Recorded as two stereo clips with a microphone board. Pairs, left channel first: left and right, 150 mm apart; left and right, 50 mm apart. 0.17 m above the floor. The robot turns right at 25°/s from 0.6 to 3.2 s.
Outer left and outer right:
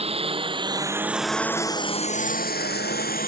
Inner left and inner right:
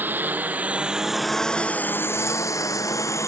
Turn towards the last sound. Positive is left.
turn(degrees=65)  # may be behind; listen again after turning